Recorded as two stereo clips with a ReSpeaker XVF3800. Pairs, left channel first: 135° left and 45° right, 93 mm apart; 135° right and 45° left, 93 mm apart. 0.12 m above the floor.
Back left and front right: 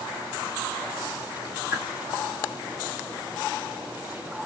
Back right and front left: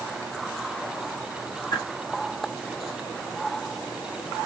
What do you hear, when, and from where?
1.7 s a whoosh: 110° right, 4.5 m